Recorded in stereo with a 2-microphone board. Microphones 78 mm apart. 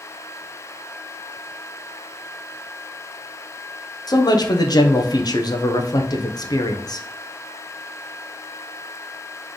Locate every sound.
4.1 s a man speaking: 55° left (ahead or behind), 0.7 m